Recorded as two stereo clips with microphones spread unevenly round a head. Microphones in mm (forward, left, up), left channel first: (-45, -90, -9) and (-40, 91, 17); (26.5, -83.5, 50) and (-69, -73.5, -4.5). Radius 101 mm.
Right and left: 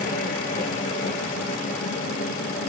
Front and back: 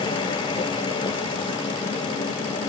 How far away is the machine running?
About 1.0 m.